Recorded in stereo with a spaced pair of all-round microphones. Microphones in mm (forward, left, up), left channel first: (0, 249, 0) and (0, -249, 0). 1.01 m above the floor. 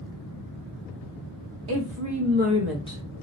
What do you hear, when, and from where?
1.7 s a woman speaking: 50° right (ahead or behind), 1.0 m; by 3.0 s 20° left (ahead or behind), 0.6 m